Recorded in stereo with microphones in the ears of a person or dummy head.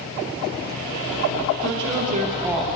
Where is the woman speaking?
70° right (ahead or behind), 1.2 m; by 2.6 s 5° left (ahead or behind), 0.6 m.